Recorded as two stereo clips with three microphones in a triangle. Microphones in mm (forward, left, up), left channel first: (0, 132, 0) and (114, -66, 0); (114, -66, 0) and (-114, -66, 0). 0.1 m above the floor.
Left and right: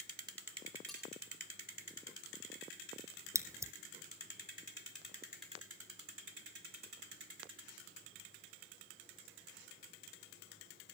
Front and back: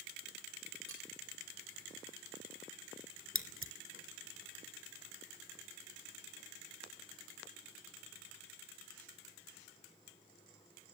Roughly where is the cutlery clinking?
Behind right.